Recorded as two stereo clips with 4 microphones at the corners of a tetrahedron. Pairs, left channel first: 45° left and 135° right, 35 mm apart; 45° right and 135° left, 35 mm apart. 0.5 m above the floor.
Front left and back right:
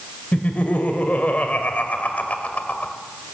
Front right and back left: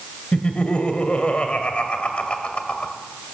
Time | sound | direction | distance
0.3 | laughter | 5° left | 2.0 m